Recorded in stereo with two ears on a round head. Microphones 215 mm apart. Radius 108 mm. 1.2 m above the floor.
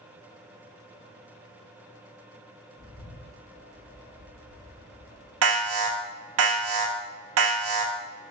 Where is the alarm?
70° right (ahead or behind), 1.1 m.